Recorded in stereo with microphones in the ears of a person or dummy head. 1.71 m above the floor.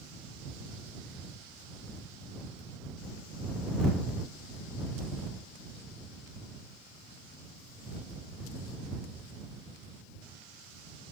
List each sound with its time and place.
Only background noise.